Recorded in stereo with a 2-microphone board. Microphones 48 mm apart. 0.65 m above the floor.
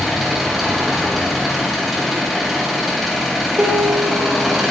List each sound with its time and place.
0.0 s an engine running: centre (ahead or behind), 3 m
3.6 s a piano: 45° right (ahead or behind), 1.7 m